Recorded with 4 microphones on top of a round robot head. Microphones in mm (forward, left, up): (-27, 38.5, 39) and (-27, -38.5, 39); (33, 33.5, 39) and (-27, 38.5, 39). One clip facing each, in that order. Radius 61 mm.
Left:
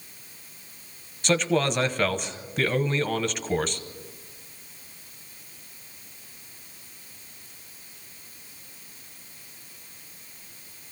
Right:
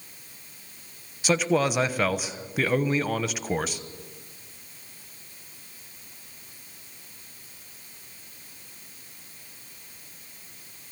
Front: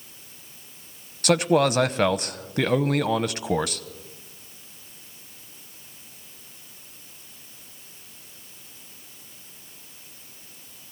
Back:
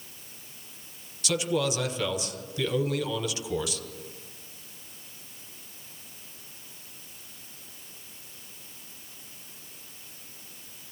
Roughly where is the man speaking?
Ahead.